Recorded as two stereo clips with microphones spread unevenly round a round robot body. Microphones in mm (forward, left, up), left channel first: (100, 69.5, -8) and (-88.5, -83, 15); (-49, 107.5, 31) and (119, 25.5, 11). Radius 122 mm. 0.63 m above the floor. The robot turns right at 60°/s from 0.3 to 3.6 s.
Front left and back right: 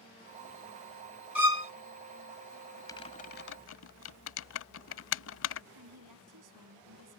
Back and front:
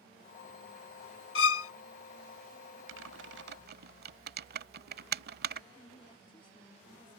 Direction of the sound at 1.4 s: 135° left.